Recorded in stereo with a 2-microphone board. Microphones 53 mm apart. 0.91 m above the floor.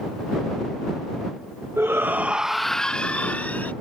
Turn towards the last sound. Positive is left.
turn(degrees=30)  # may be behind; listen again after turning